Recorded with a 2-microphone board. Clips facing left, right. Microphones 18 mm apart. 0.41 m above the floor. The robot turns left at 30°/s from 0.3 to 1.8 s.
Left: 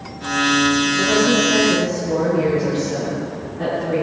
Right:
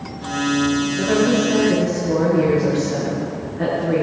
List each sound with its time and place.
1.0 s a woman speaking: centre (ahead or behind), 6 m; by 4.0 s 25° right (ahead or behind), 6 m